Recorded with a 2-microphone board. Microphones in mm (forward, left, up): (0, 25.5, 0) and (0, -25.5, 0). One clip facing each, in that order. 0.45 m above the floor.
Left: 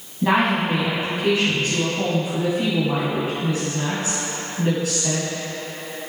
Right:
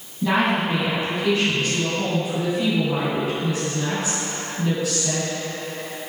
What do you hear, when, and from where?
0.2 s a woman speaking: 35° left (ahead or behind), 2.5 m